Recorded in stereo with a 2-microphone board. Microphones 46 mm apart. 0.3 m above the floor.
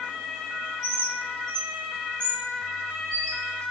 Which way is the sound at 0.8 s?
15° left (ahead or behind).